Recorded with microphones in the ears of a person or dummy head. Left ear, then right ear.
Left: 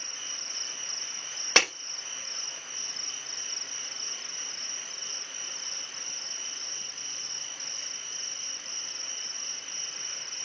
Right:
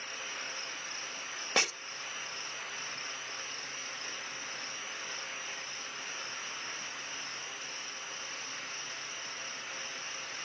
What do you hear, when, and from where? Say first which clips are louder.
0.0 s an insect: left 3 dB; 75° left (ahead or behind), 2.5 m
1.6 s breaking glass: left 7 dB; 65° left (ahead or behind), 6 m